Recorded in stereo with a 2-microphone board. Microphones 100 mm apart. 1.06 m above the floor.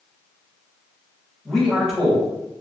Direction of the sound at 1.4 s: 5° left (ahead or behind).